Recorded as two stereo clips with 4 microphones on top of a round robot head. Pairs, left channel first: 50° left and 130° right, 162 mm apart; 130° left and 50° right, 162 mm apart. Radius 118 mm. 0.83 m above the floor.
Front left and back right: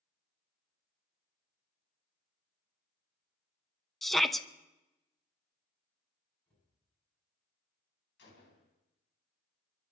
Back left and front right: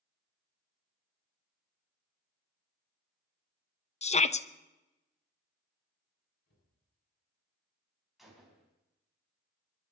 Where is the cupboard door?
135° left, 9.5 m.